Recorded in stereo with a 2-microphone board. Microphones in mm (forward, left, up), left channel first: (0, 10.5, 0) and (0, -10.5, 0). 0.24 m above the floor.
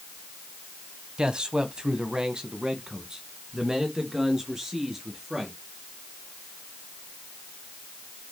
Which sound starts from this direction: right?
A man speaking, at 1.2 s.